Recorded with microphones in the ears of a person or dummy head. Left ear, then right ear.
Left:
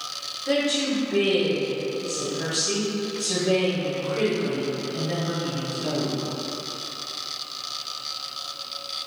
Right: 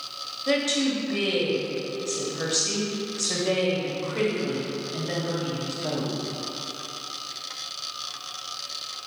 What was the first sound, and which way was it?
A woman speaking, 60° right (ahead or behind).